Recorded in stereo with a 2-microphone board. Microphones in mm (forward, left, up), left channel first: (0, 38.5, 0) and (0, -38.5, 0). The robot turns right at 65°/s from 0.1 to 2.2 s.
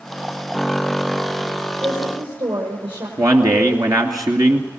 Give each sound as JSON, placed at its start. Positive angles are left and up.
{"t": 1.8, "sound": "a woman speaking", "side_deg": -55, "distance_m": 6.0}
{"t": 3.2, "sound": "a man speaking", "side_deg": -50, "distance_m": 2.5}